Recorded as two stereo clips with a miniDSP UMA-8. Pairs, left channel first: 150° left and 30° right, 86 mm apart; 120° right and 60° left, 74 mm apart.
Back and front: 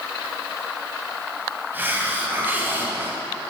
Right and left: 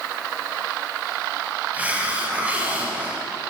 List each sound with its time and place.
1.7 s a hiss: 10° left, 1.5 m